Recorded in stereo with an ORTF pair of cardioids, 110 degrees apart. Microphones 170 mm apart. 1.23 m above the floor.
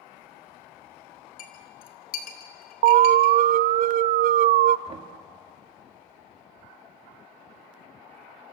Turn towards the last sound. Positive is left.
turn(degrees=-35)